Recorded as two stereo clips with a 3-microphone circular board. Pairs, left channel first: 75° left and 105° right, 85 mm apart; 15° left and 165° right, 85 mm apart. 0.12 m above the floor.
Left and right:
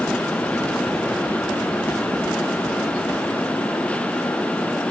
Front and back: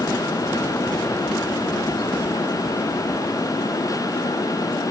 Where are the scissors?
No scissors in this recording.